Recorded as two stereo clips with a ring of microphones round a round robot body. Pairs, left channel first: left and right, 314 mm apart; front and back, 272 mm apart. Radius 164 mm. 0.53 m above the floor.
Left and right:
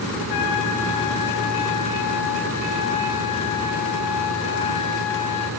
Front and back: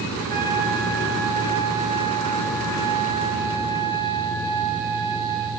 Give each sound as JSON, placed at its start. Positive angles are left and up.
{"t": 0.2, "sound": "a trumpet", "azimuth_deg": 120, "distance_m": 2.5}